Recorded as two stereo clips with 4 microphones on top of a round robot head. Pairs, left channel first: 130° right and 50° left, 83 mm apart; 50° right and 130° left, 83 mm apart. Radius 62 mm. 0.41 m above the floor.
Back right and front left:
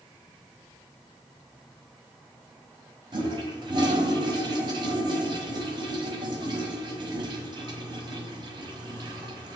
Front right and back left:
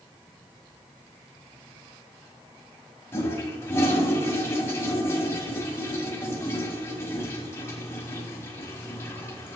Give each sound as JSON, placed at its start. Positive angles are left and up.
{"t": 3.1, "sound": "a toilet flushing", "azimuth_deg": 15, "distance_m": 1.0}